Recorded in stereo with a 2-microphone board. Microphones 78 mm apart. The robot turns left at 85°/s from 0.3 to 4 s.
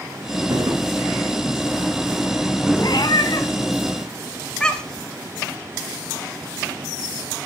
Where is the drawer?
60° right (ahead or behind), 1.9 m; by 0.8 s 40° right (ahead or behind), 1.9 m.